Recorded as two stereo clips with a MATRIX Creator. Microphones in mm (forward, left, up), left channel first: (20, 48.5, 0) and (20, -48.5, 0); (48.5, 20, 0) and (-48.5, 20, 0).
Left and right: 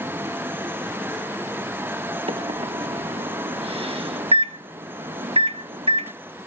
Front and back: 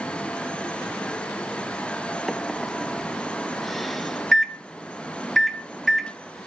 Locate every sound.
2.3 s a microwave: 90° right, 1.3 m